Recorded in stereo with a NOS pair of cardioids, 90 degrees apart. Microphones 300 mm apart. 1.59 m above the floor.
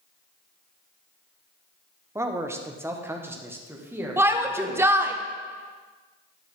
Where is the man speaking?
10° right, 1.1 m; by 5.2 s 5° right, 2.5 m.